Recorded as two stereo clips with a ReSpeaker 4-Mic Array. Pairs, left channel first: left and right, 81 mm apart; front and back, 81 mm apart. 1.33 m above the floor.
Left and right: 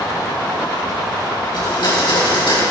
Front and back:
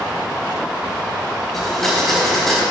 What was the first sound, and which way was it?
A blender, 85° left.